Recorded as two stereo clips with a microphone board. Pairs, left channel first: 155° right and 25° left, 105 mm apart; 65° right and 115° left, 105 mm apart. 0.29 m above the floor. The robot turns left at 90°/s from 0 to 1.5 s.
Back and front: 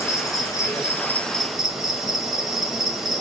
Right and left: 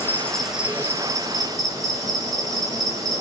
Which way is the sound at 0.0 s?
115° right.